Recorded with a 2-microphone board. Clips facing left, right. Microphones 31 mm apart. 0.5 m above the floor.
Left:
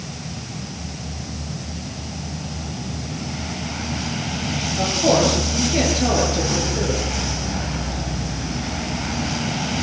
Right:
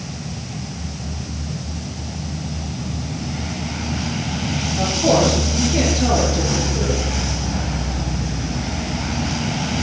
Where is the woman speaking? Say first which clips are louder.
Right 1 dB; 10° left (ahead or behind), 9 m; by 7.0 s 15° left (ahead or behind), 9.5 m.